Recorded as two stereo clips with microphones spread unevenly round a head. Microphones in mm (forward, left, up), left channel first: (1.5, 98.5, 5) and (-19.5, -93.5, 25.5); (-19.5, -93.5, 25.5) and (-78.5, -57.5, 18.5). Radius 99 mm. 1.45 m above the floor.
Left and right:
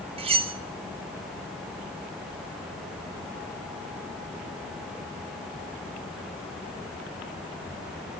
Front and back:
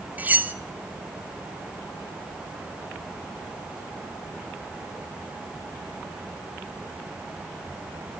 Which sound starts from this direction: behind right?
Cutlery clinking, at 0.2 s.